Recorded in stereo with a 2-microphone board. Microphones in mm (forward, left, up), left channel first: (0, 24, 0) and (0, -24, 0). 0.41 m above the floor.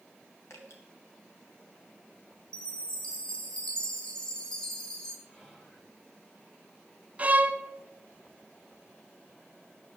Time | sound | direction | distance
0.5 | dripping | 70° left (ahead or behind) | 2.5 m
2.5 | a chime | 25° left (ahead or behind) | 1.8 m
5.3 | whispering | 15° left (ahead or behind) | 6.5 m
7.2 | a violin | 30° right (ahead or behind) | 0.7 m